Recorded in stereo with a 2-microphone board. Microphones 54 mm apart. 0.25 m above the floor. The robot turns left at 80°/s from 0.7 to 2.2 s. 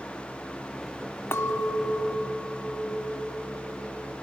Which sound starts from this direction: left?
A clink, at 1.3 s.